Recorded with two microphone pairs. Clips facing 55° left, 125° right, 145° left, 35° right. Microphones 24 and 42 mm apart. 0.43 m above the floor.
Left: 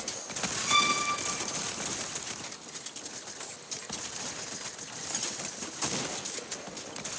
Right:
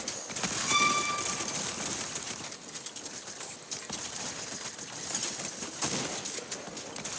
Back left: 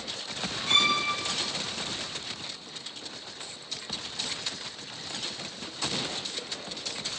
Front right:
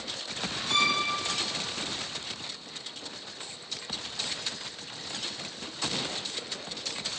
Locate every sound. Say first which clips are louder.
0.7 s a violin: left 1 dB, back left 2 dB; 95° left, 1.0 m